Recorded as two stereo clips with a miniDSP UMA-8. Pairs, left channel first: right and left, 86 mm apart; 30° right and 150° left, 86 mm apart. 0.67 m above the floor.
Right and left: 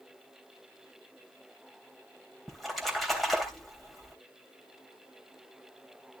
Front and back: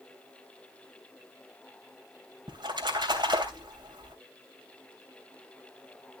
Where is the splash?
Straight behind, 3 m.